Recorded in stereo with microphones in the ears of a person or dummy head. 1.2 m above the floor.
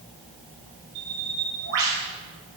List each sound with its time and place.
0.9 s a bird: 70° right (ahead or behind), 3.5 m